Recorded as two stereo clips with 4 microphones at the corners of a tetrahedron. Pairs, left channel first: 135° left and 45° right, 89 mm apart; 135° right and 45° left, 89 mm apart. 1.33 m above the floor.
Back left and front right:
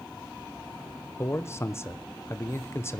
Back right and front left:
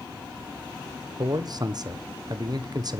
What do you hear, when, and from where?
1.2 s a man speaking: 80° left, 0.9 m